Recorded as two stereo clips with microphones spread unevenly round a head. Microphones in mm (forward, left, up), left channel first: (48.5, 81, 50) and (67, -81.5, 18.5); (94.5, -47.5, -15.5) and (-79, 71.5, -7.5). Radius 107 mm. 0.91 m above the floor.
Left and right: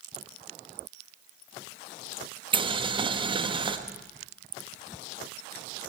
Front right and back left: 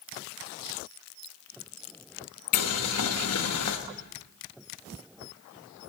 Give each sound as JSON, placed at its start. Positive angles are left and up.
{"t": 2.5, "sound": "boiling", "azimuth_deg": -30, "distance_m": 1.2}